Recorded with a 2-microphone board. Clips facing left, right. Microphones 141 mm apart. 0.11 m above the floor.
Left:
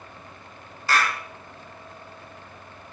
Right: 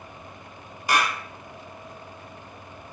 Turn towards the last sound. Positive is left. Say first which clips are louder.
# even
turn(degrees=-15)  # may be behind; listen again after turning